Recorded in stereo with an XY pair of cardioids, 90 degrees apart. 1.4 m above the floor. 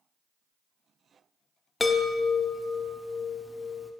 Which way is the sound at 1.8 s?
20° left.